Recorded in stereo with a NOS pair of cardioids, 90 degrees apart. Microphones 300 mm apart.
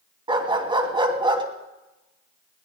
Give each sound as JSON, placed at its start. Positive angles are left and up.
{"t": 0.3, "sound": "a dog barking", "azimuth_deg": -15, "distance_m": 3.0}